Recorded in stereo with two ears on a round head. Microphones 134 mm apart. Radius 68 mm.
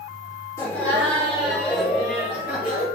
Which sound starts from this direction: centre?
Laughter, at 0.6 s.